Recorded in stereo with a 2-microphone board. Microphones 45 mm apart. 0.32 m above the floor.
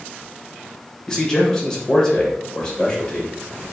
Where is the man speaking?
15° left (ahead or behind), 0.9 m.